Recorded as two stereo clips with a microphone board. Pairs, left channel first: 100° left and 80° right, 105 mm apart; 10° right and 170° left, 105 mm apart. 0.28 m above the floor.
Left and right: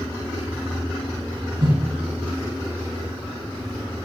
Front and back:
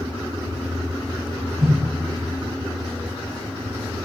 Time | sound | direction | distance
1.6 | a whoosh | 110° right | 7.5 m